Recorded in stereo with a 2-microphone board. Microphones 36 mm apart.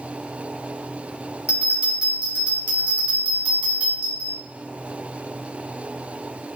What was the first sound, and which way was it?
A bell, 45° right (ahead or behind).